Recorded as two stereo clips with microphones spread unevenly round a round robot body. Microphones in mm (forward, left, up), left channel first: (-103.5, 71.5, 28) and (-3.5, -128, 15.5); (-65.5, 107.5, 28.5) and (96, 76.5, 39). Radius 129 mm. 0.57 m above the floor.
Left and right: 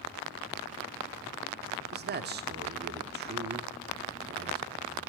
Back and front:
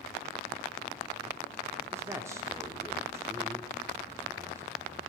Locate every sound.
1.9 s a man speaking: 85° right, 1.0 m